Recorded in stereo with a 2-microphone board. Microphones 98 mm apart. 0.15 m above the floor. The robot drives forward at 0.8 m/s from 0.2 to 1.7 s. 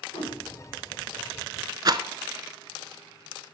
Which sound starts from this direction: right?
A rattle, at 1.9 s.